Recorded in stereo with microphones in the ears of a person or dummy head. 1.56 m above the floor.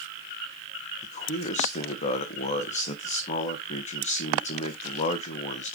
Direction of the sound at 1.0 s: 40° left (ahead or behind).